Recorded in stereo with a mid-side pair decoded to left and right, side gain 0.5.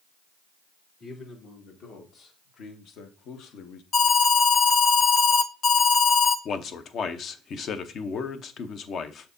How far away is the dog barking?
No dog barking in this recording.